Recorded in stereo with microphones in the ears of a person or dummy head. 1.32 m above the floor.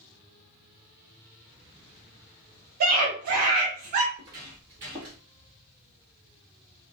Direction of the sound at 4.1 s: 25° right (ahead or behind).